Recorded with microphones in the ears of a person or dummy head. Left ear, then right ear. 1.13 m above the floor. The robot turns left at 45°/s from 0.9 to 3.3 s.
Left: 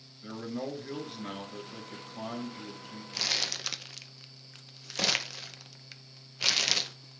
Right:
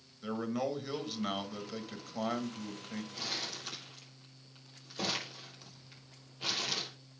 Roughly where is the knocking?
I don't hear knocking.